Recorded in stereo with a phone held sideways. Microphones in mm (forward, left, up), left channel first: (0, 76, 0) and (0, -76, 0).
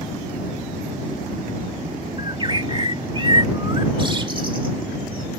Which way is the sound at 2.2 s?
35° right (ahead or behind).